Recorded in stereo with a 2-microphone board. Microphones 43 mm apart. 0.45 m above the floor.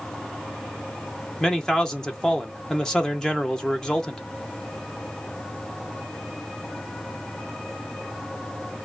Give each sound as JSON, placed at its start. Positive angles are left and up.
{"t": 1.4, "sound": "a man speaking", "side_deg": 15, "distance_m": 0.8}